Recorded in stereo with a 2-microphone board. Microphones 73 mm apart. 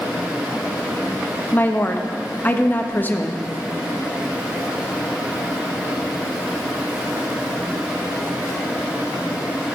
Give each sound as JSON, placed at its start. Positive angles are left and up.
{"t": 1.5, "sound": "a woman speaking", "side_deg": 25, "distance_m": 0.7}